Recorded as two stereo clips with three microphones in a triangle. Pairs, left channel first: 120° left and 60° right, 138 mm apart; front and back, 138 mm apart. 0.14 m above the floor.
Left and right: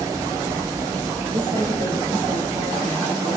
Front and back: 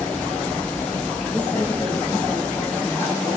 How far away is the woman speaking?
About 4 m.